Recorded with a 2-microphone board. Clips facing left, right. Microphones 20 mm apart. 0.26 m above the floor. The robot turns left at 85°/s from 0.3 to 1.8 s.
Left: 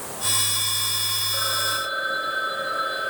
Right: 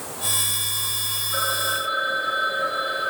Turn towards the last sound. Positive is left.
turn(degrees=-175)